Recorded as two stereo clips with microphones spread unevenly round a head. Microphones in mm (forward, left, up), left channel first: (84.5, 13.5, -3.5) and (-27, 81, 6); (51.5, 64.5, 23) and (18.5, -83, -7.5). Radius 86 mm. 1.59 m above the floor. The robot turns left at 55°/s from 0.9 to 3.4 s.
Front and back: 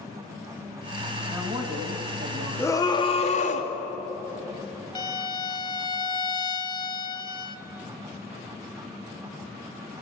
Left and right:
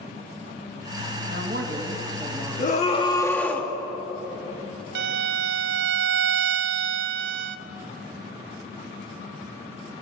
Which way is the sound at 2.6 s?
40° left.